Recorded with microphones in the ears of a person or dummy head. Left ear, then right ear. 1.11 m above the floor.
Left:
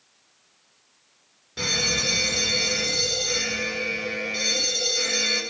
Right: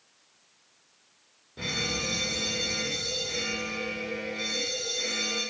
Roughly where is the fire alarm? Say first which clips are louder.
Left 7 dB; left.